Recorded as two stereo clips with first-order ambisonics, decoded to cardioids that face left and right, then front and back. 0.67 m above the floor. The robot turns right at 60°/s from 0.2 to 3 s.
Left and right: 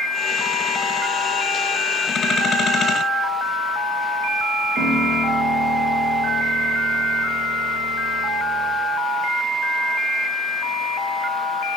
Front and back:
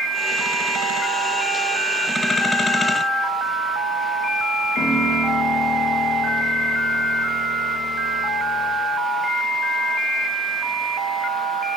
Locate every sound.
4.8 s a piano: 40° right, 1.7 m